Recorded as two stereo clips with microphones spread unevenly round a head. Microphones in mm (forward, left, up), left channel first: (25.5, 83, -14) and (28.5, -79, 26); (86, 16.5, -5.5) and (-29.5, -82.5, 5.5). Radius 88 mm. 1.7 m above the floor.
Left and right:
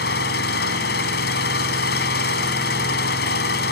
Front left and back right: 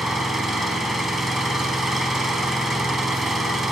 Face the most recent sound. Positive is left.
turn(degrees=130)